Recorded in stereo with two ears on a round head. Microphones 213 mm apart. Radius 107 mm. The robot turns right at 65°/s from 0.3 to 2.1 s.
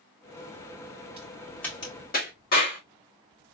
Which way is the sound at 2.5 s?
40° left (ahead or behind).